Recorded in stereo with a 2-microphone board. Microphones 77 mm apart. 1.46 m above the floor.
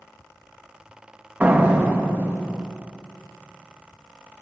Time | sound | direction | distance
1.4 | a door slam | 20° right (ahead or behind) | 1.7 m